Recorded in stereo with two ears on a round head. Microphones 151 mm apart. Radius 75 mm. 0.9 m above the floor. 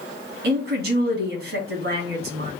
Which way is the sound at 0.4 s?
65° right (ahead or behind).